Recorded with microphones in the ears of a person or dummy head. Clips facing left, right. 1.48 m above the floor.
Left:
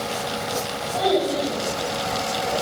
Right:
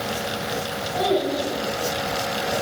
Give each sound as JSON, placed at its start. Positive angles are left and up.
{"t": 0.9, "sound": "a child speaking", "side_deg": -25, "distance_m": 4.5}